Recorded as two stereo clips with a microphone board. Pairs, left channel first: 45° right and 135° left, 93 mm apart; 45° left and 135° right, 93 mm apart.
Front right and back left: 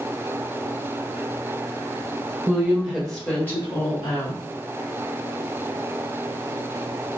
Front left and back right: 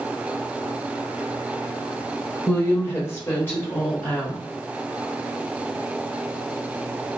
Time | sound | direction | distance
2.5 | a woman speaking | 95° left | 1.1 m